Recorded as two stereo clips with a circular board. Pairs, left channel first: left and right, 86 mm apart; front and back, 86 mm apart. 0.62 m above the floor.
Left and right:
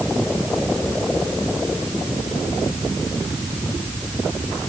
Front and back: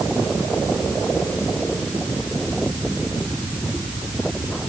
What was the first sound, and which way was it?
Only background noise.